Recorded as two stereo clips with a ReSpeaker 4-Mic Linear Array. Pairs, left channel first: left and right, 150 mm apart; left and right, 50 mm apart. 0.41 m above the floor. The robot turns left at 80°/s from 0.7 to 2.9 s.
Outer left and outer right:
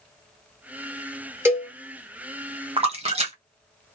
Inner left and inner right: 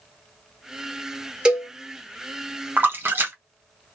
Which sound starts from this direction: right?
A splash, at 2.8 s.